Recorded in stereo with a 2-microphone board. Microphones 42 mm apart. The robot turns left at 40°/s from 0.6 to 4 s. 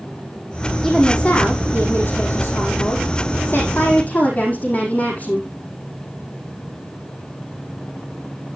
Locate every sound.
0.8 s a woman speaking: 165° left, 5.5 m; by 5.5 s 40° left, 5.5 m